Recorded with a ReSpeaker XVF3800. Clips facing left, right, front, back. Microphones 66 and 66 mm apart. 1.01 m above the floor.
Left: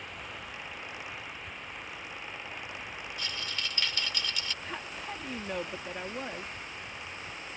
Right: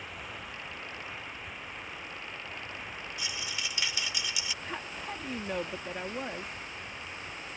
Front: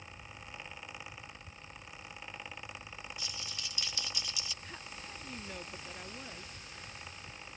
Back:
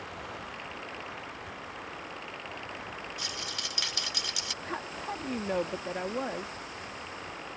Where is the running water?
Straight behind.